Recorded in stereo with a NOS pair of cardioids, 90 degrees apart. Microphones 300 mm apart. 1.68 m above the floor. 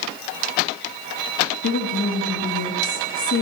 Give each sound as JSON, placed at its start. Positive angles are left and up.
{"t": 1.6, "sound": "a woman speaking", "azimuth_deg": 45, "distance_m": 3.0}